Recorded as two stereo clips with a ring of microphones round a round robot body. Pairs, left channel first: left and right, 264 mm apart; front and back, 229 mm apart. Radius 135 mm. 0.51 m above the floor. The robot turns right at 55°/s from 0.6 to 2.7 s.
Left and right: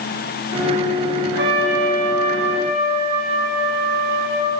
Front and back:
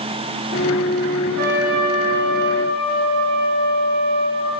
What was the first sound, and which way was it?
A trumpet, 145° right.